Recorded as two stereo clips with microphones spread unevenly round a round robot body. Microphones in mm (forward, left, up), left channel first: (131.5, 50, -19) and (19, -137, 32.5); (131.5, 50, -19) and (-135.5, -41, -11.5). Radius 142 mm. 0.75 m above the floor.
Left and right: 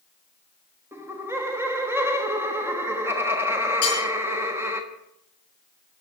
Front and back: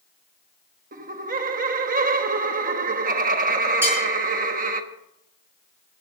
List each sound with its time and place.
0.9 s laughter: 145° left, 1.3 m
3.8 s cutlery clinking: 115° left, 9 m